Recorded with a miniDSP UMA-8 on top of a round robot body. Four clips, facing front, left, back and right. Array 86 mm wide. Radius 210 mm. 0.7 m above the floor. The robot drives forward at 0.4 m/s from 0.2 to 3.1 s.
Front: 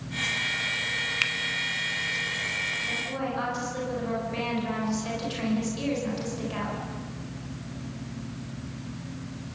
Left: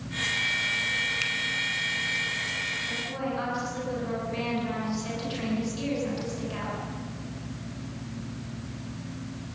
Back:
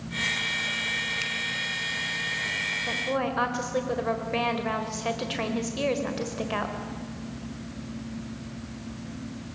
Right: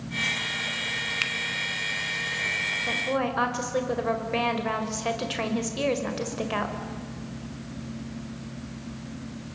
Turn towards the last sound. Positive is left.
turn(degrees=-130)